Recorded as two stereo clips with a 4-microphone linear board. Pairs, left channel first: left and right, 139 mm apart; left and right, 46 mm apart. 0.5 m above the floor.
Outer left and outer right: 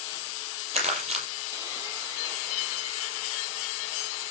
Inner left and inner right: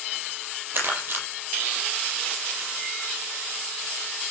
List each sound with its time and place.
0.7 s crumpling: 50° right (ahead or behind), 7.5 m